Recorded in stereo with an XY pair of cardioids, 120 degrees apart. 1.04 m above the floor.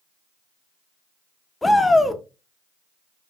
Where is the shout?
15° left, 0.6 m.